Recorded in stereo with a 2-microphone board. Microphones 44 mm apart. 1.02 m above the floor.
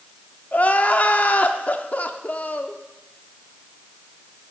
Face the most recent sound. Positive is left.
turn(degrees=35)  # may be behind; listen again after turning